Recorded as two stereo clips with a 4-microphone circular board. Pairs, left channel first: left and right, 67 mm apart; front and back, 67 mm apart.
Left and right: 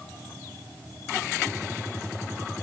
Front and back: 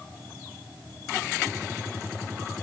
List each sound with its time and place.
Only background noise.